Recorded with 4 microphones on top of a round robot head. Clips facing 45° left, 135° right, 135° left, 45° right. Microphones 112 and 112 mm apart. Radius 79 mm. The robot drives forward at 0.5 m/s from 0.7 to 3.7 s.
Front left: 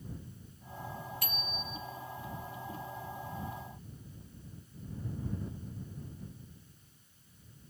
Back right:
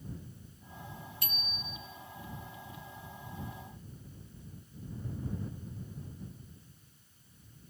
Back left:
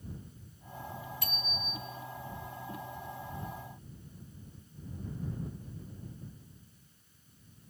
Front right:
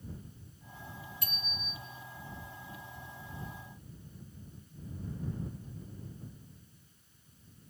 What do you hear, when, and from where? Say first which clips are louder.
1.2 s a bicycle bell: front left 4 dB, back left 4 dB; 160° left, 3 m